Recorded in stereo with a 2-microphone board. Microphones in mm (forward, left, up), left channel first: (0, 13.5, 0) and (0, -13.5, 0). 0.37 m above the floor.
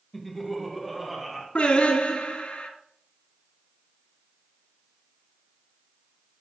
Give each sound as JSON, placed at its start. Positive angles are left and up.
{"t": 0.1, "sound": "laughter", "side_deg": 5, "distance_m": 1.4}
{"t": 1.6, "sound": "singing", "side_deg": 55, "distance_m": 1.9}